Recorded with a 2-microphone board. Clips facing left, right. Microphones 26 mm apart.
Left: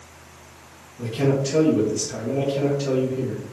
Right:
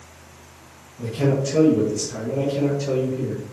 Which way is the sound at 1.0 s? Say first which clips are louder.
Even; 40° left (ahead or behind).